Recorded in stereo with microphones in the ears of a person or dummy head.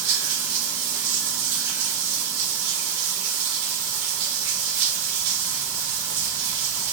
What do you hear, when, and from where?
0.0 s running water: 65° right (ahead or behind), 0.9 m